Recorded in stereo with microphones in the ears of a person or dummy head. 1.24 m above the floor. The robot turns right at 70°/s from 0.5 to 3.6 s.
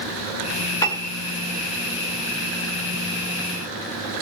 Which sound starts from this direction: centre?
A piano, at 0.8 s.